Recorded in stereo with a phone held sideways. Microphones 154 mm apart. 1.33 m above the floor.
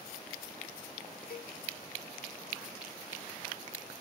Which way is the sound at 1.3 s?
80° left.